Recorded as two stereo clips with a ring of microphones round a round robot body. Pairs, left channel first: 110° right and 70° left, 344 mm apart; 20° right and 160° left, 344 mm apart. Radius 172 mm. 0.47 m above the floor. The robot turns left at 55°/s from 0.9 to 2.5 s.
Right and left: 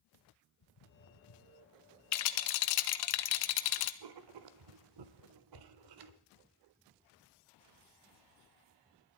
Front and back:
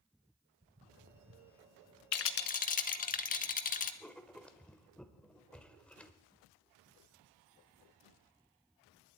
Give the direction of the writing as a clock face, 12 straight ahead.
10 o'clock.